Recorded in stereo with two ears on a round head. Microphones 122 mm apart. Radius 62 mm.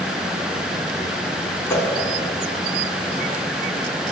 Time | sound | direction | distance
1.7 | a whoosh | 20° left (ahead or behind) | 3 m